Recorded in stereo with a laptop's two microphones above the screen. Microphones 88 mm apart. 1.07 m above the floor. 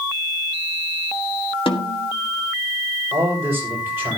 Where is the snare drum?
80° left, 1.9 m.